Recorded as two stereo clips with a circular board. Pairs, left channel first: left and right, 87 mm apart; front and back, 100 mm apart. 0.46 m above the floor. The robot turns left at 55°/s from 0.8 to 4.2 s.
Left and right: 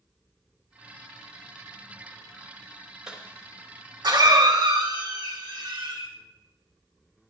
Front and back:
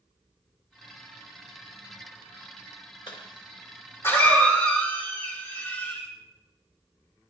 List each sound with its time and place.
3.1 s a cough: 10° right, 2.5 m; by 6.1 s 70° right, 2.5 m